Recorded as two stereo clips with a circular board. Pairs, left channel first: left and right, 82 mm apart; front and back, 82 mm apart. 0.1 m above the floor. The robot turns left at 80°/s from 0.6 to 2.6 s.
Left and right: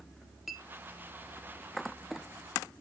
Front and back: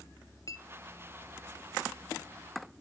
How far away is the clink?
About 1.0 m.